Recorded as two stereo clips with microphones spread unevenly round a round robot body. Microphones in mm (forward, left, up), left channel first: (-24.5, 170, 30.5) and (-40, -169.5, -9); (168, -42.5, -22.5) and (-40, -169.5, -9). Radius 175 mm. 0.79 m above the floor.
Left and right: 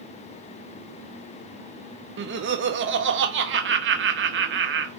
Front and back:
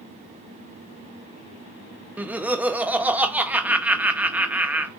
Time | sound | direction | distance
2.2 | laughter | 65° right | 0.6 m